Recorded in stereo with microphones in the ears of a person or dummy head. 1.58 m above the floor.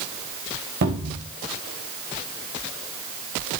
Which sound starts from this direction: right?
A cupboard door, at 0.8 s.